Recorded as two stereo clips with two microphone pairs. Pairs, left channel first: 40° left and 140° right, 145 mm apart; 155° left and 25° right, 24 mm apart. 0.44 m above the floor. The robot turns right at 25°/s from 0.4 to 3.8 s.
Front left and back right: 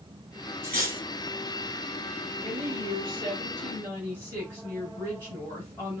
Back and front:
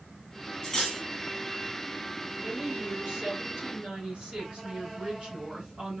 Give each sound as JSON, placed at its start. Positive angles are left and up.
{"t": 0.6, "sound": "cutlery clinking", "azimuth_deg": -145, "distance_m": 1.9}
{"t": 2.4, "sound": "a woman speaking", "azimuth_deg": -105, "distance_m": 3.0}